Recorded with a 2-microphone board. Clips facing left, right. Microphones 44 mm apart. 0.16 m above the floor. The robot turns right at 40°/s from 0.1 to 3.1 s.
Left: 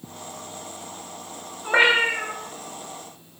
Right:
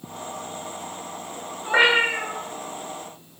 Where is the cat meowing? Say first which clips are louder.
Even; 10° left (ahead or behind), 0.9 m; by 2.4 s 15° right (ahead or behind), 0.9 m.